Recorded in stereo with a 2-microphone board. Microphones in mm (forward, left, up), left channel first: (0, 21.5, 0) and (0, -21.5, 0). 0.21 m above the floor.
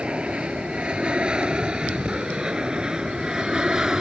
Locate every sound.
0.0 s an aircraft: 25° right (ahead or behind); by 4.0 s 15° right (ahead or behind)